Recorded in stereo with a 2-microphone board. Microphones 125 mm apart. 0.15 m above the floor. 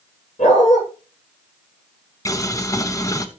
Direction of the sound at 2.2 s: 25° left (ahead or behind).